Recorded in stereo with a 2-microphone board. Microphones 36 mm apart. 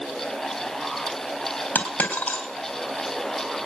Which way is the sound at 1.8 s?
65° left (ahead or behind).